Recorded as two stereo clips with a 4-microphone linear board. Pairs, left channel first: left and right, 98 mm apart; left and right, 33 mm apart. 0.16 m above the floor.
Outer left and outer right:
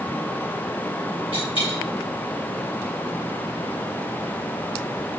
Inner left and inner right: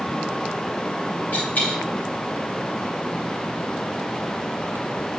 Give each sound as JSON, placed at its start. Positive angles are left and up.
{"t": 1.3, "sound": "a dropped coin", "side_deg": 60, "distance_m": 2.5}